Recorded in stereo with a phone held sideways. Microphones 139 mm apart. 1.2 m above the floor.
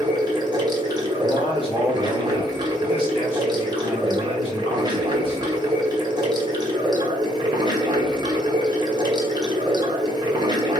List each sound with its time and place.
0.0 s running water: 30° right (ahead or behind), 0.9 m
1.2 s a man speaking: 40° left (ahead or behind), 2.5 m